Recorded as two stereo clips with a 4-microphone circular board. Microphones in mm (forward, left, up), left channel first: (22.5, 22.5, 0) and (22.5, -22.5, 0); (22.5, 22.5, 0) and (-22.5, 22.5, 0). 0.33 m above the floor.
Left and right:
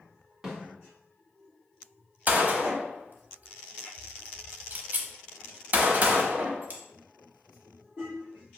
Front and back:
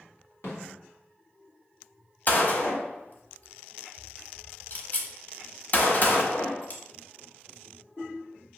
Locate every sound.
0.4 s a snare drum: 15° right, 2.5 m
2.3 s a gunshot: 45° right, 0.9 m